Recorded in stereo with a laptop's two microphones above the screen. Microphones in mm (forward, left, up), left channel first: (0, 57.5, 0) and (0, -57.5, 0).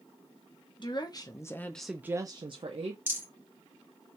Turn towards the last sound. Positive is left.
turn(degrees=-20)  # may be behind; listen again after turning